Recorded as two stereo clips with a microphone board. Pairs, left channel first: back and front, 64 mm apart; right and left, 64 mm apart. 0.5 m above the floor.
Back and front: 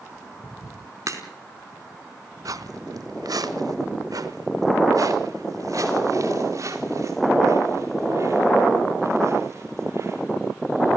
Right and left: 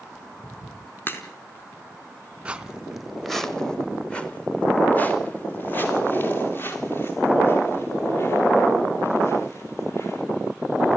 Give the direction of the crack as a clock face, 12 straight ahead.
1 o'clock.